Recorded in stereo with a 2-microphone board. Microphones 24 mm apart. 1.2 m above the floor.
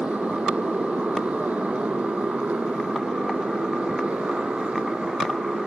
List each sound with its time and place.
0.0 s a motorcycle: 85° right; by 5.7 s 80° right